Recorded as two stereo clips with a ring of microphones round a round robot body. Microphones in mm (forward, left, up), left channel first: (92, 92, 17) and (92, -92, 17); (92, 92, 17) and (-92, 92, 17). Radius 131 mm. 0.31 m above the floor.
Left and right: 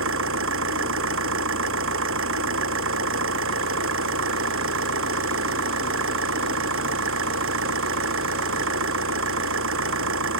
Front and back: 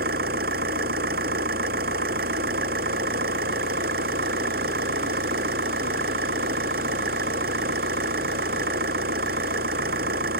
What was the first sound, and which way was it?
An engine running, 125° right.